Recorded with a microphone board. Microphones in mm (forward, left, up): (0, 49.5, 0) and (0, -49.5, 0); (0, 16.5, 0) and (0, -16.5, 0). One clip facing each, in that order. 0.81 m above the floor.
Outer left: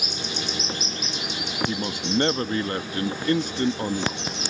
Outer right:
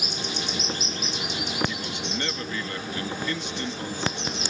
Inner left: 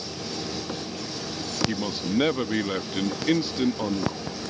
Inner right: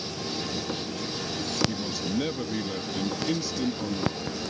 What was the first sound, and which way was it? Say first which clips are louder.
A man speaking: outer left 5 dB, inner left 3 dB; 45° left (ahead or behind).